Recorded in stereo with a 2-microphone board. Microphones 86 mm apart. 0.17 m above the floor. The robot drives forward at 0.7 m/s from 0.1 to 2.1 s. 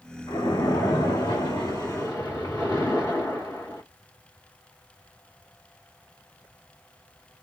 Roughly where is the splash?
Left.